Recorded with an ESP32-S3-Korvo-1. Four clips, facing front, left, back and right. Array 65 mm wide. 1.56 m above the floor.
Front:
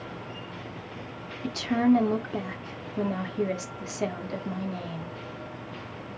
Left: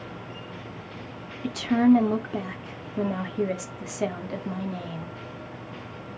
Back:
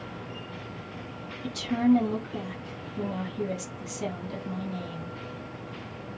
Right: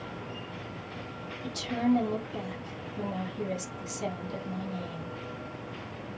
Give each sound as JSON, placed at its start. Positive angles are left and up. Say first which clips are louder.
{"t": 1.4, "sound": "a woman speaking", "louder": "left 8 dB, front 1 dB", "azimuth_deg": 55, "distance_m": 0.6}